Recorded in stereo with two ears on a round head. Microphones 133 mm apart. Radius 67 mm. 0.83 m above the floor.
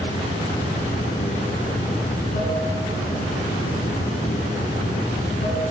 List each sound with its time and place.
0.0 s running water: 55° left (ahead or behind), 5.5 m